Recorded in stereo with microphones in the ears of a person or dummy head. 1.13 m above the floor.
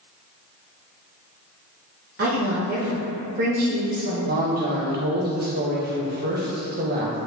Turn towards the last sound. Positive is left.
turn(degrees=-40)  # may be behind; listen again after turning